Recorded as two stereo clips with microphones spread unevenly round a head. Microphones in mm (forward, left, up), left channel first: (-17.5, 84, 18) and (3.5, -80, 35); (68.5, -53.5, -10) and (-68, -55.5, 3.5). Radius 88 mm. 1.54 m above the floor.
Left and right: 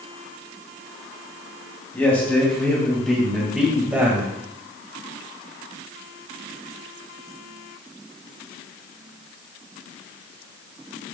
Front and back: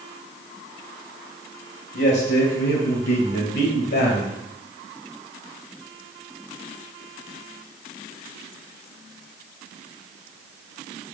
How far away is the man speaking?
About 2.5 m.